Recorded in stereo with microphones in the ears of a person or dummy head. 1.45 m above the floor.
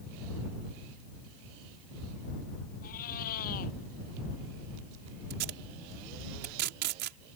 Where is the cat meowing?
50° left (ahead or behind).